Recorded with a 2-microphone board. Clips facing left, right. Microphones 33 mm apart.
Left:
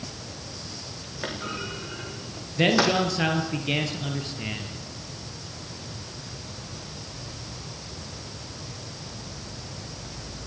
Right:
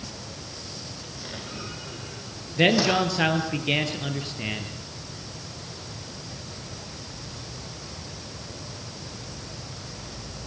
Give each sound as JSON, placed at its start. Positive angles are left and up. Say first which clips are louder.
{"t": 1.2, "sound": "a clunk", "louder": "left 6 dB", "side_deg": 65, "distance_m": 5.5}
{"t": 2.6, "sound": "a man speaking", "louder": "right 1 dB", "side_deg": -15, "distance_m": 3.5}